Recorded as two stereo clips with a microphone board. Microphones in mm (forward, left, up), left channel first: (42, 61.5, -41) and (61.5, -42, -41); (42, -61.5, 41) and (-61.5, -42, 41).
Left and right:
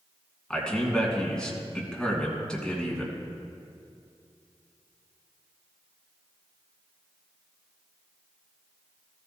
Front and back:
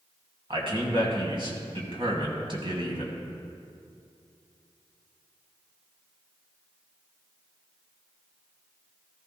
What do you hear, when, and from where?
0.5 s a man speaking: straight behind, 2.5 m